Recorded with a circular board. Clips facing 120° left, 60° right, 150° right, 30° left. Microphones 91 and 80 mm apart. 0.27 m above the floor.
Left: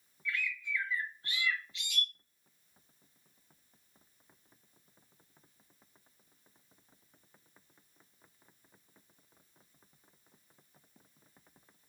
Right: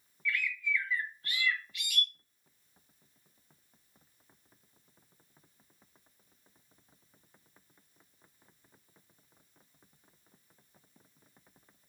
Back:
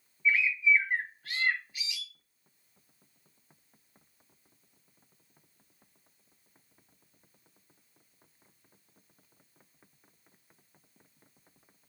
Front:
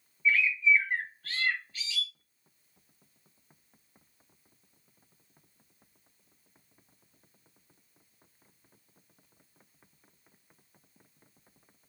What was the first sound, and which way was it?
A bird, 150° left.